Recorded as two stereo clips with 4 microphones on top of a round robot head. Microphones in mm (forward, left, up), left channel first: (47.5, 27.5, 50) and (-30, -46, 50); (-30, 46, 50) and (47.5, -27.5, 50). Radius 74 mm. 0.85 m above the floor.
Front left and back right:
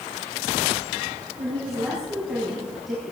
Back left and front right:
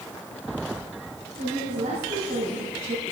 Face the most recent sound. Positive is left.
turn(degrees=-45)